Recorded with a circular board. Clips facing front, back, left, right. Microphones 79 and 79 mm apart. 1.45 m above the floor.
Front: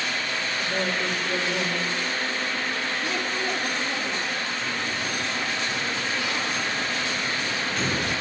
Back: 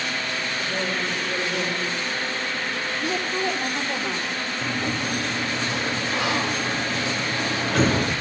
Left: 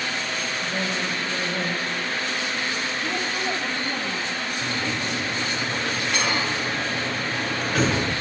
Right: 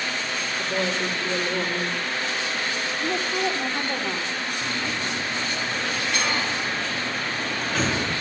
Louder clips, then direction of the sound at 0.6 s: Front 1 dB, right 4 dB; 80° right.